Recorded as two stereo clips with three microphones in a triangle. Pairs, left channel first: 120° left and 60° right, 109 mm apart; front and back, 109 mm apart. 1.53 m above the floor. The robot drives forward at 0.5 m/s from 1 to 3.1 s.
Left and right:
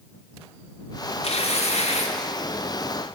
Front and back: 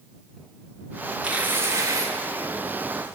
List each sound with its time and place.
1.2 s tearing paper: 100° left, 1.1 m; by 2.1 s 120° left, 1.3 m